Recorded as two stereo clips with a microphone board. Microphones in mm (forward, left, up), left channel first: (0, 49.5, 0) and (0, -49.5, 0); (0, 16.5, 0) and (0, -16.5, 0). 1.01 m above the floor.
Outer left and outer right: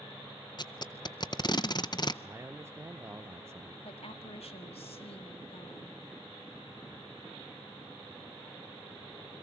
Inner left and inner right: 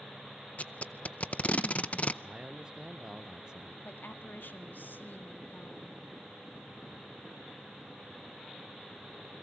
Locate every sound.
0.6 s tape being pulled: 45° left (ahead or behind), 0.5 m
2.2 s a man speaking: 25° right (ahead or behind), 0.5 m
3.9 s a woman speaking: 80° left, 1.8 m